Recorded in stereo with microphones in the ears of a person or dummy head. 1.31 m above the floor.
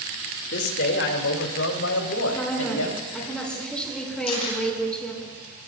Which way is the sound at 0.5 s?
55° left (ahead or behind).